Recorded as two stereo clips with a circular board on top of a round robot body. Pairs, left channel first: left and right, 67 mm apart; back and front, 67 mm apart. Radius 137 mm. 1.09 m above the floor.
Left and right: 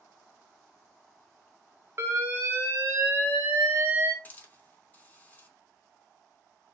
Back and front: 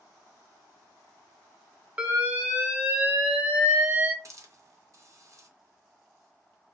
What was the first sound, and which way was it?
An alarm, 60° right.